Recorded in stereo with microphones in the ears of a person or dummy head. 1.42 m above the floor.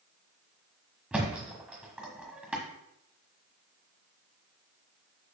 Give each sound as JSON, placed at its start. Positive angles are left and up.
{"t": 1.1, "sound": "a thud", "side_deg": -5, "distance_m": 1.4}